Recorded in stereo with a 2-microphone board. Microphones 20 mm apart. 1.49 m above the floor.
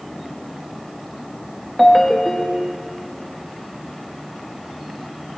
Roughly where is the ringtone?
Centre.